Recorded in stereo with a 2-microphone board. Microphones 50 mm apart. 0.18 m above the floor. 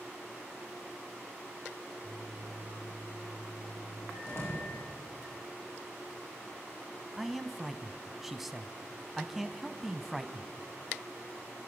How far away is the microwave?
About 8 m.